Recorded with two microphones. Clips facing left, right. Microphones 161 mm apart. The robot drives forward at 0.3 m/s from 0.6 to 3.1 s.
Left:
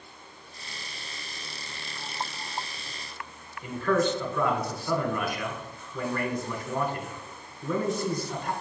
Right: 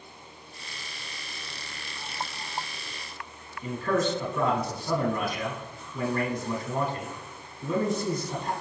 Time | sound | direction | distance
3.6 | a man speaking | 25° right (ahead or behind) | 1.1 m